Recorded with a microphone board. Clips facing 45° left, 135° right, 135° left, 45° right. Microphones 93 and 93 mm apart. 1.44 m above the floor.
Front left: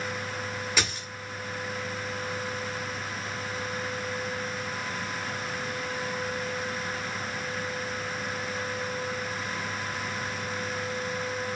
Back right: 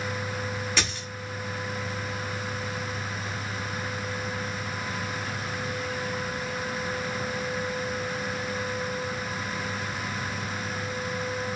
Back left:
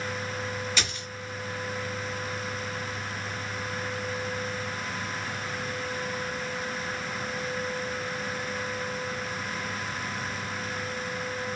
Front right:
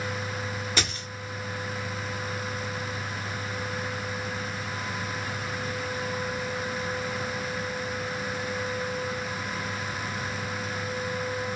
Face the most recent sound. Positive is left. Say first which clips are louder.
# even, front right 2 dB
turn(degrees=-35)